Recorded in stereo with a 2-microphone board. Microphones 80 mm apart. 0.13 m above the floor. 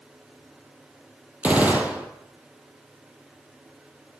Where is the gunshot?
20° right (ahead or behind), 1.4 m.